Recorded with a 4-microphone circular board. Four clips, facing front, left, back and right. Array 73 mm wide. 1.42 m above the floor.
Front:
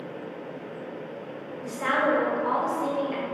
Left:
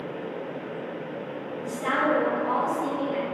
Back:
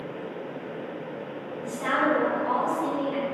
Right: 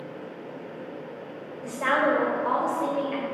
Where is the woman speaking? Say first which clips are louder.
Right 2 dB, even; 65° right, 0.7 m.